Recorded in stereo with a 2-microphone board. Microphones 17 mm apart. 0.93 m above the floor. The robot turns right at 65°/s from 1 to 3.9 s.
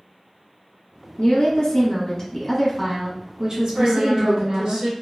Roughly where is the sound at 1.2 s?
Left.